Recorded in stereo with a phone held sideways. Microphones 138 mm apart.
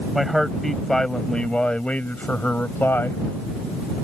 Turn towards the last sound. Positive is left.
turn(degrees=15)  # may be behind; listen again after turning